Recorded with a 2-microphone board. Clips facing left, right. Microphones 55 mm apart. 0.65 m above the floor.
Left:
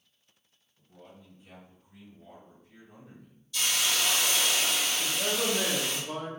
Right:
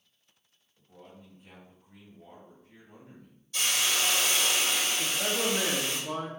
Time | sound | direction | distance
0.8 | a man speaking | 55° right (ahead or behind) | 1.7 m
3.5 | a hiss | 45° right (ahead or behind) | 1.8 m
5.0 | a man speaking | 35° right (ahead or behind) | 1.0 m